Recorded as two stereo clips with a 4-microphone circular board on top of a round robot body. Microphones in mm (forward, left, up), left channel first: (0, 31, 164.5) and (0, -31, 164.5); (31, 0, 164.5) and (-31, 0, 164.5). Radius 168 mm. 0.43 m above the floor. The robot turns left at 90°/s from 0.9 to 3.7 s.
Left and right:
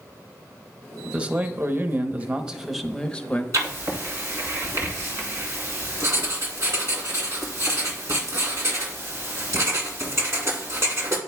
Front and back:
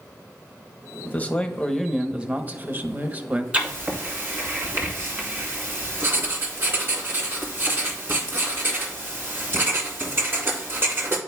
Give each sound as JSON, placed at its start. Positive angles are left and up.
{"t": 1.1, "sound": "a man speaking", "azimuth_deg": -25, "distance_m": 1.1}
{"t": 3.5, "sound": "writing", "azimuth_deg": -110, "distance_m": 2.0}